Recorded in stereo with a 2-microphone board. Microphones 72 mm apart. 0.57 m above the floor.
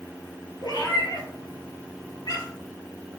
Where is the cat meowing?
70° left (ahead or behind), 1.5 m; by 2.7 s 55° left (ahead or behind), 2.5 m.